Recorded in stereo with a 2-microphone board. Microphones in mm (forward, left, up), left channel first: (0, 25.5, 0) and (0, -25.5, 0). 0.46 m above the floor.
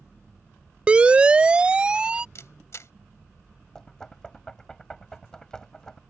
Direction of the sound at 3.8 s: 10° left (ahead or behind).